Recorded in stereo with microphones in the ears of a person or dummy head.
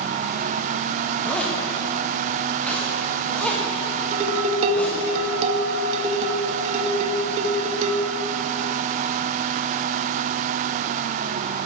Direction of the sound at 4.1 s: 35° right (ahead or behind).